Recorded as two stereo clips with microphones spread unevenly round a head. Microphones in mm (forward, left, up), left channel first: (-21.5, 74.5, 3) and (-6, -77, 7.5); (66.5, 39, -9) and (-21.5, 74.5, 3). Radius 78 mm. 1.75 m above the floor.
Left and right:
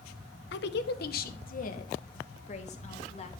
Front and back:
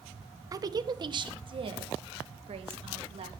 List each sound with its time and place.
0.5 s a woman speaking: 105° left, 1.4 m; by 3.3 s 145° left, 3 m